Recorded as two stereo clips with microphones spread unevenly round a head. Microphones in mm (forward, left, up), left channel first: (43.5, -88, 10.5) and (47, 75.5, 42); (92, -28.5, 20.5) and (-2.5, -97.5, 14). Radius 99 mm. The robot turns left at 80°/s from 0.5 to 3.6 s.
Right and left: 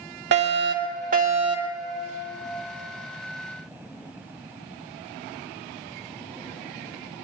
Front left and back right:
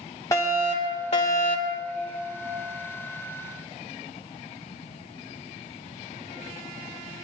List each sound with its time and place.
0.3 s a fire alarm: 100° left, 2.5 m; by 1.8 s straight ahead, 2.5 m